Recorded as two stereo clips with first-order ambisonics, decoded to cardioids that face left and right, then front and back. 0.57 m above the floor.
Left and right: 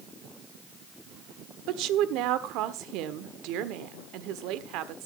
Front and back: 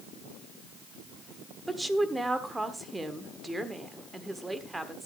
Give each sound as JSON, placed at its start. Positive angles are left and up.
{"t": 1.7, "sound": "a woman speaking", "azimuth_deg": -100, "distance_m": 1.3}